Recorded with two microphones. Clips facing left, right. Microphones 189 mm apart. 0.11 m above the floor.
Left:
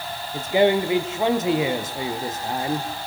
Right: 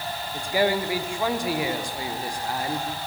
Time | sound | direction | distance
0.3 | a man speaking | 20° left (ahead or behind) | 3 m